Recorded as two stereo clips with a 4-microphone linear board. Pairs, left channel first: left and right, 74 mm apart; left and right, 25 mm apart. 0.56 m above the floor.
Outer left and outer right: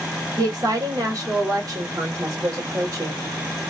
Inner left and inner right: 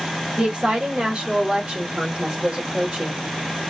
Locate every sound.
0.4 s a woman speaking: 50° right (ahead or behind), 1.3 m; by 3.2 s 45° right (ahead or behind), 2 m